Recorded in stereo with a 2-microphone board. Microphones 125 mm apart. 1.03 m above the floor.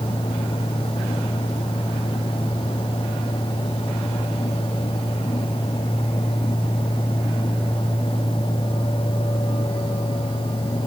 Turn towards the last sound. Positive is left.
No sound to turn to.